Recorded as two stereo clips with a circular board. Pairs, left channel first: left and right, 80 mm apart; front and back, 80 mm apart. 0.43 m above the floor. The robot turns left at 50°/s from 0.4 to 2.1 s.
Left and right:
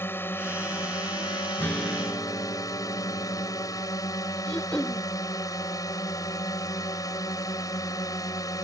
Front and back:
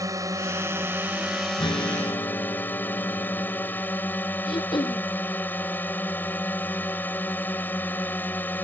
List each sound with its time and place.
0.0 s a drone: 145° left; by 8.6 s 60° left
1.6 s a guitar: 25° left; by 3.8 s straight ahead
4.5 s throat clearing: 15° left